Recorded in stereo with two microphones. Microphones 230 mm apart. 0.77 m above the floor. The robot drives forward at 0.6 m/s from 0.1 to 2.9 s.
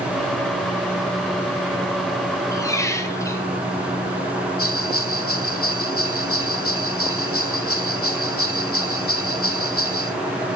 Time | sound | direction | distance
2.5 | a squeak | 15° left (ahead or behind) | 2 m
4.6 | a bell | 75° left (ahead or behind) | 1.6 m